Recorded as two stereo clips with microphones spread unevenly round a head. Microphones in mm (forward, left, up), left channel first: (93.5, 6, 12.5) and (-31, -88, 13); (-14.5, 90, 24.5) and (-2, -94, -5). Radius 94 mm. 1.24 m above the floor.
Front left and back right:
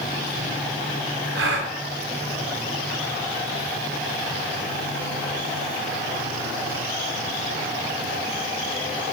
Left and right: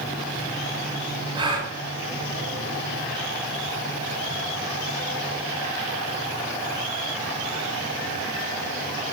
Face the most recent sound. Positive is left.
turn(degrees=-155)